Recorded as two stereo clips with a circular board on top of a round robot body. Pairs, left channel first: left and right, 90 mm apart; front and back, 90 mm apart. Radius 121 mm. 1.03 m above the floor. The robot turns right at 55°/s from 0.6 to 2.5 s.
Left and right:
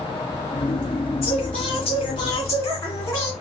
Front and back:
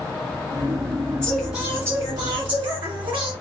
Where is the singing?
80° left, 1.9 m; by 3.3 s 150° left, 1.9 m.